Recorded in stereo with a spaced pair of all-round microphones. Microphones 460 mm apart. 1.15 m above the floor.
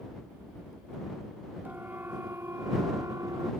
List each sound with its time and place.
1.6 s a siren: 5° right (ahead or behind)